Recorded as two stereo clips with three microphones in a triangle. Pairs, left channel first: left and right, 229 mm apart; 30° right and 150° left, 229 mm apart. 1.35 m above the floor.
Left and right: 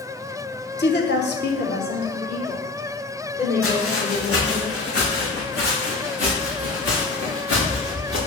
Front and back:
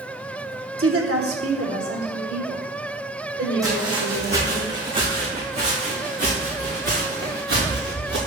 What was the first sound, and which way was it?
A woman speaking, 130° left.